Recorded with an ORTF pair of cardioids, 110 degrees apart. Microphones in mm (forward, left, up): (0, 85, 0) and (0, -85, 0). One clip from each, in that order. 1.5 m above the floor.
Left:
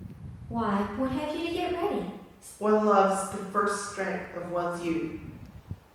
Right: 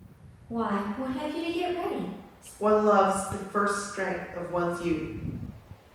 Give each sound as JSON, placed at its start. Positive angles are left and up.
{"t": 0.5, "sound": "a woman speaking", "azimuth_deg": 0, "distance_m": 0.5}
{"t": 2.6, "sound": "a woman speaking", "azimuth_deg": -5, "distance_m": 0.9}